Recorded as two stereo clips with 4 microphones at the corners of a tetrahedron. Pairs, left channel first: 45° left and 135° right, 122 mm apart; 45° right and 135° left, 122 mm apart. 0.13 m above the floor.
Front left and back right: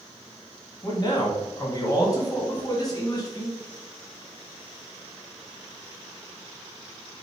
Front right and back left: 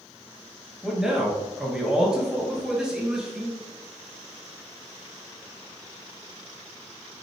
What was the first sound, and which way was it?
A man speaking, 55° left.